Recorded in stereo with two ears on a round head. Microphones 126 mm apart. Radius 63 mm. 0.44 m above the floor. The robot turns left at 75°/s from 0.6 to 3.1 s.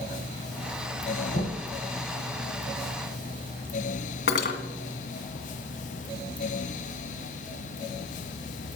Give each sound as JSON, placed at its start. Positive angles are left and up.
{"t": 1.3, "sound": "knocking", "side_deg": 60, "distance_m": 2.5}
{"t": 4.3, "sound": "cutlery clinking", "side_deg": 75, "distance_m": 2.0}